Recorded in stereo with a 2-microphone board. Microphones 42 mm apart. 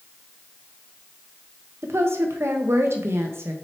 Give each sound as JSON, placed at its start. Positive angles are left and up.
{"t": 1.8, "sound": "a woman speaking", "side_deg": -75, "distance_m": 1.0}